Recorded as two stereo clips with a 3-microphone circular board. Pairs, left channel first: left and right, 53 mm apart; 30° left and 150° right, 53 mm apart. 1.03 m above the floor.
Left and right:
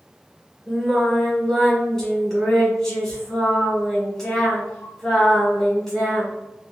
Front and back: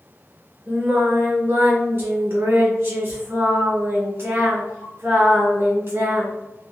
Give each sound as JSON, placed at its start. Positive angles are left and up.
{"t": 0.7, "sound": "singing", "azimuth_deg": 175, "distance_m": 1.7}